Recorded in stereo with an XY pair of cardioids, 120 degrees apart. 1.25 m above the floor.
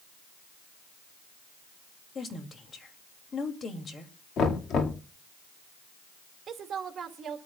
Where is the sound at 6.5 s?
40° right, 2.5 m.